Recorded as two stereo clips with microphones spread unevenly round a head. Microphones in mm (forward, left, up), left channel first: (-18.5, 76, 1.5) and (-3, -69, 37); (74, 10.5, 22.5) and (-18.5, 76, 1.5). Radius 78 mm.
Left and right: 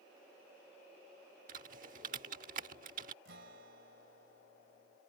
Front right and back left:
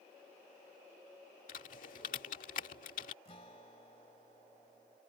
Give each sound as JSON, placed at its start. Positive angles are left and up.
{"t": 1.5, "sound": "typing on a keyboard", "azimuth_deg": -45}
{"t": 3.2, "sound": "a guitar", "azimuth_deg": -90}